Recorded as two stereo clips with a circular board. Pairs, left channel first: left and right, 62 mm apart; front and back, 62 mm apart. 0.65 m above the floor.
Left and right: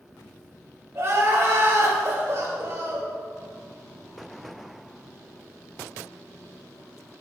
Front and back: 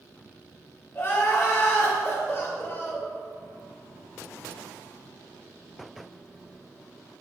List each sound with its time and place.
0.9 s crying: 50° right, 2.0 m